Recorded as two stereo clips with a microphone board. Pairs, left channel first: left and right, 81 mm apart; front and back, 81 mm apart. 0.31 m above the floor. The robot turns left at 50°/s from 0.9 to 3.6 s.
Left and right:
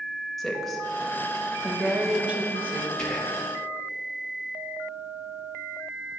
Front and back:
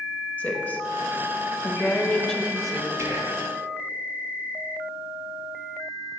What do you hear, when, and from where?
0.4 s a woman speaking: 5° left, 0.9 m; by 2.9 s 95° right, 0.9 m
3.0 s whispering: 170° left, 1.4 m; by 3.5 s 145° left, 1.4 m